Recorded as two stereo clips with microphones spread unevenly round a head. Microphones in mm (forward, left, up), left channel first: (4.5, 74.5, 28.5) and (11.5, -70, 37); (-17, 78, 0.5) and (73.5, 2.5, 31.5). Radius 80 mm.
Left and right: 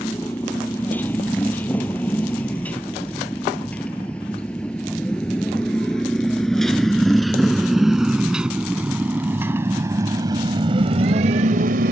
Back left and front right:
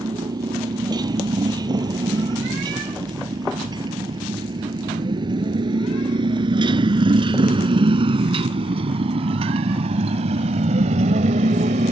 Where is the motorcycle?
15° left; by 11.9 s 70° right.